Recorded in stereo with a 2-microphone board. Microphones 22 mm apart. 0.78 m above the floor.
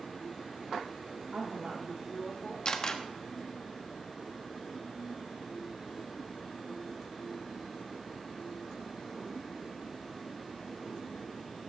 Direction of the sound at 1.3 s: 70° right (ahead or behind).